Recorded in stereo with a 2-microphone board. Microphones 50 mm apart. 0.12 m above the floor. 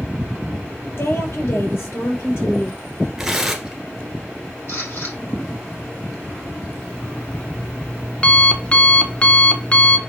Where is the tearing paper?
5° right (ahead or behind), 1.4 m.